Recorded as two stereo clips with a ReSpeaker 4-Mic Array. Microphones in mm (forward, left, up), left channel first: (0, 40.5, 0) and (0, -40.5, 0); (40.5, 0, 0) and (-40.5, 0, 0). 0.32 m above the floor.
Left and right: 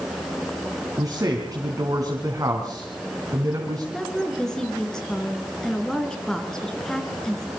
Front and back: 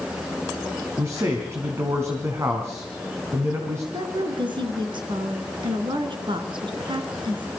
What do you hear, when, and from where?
1.0 s a man speaking: 130° right, 3.5 m
3.9 s a woman speaking: 175° left, 3.5 m